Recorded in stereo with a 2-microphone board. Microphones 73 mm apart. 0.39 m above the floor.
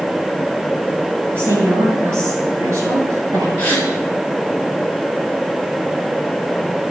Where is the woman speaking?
30° right (ahead or behind), 7 m; by 3.5 s 45° right (ahead or behind), 8 m.